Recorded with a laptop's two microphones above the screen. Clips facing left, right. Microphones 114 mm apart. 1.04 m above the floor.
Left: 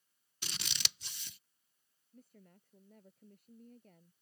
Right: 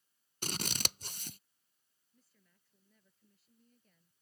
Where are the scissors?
45° right (ahead or behind).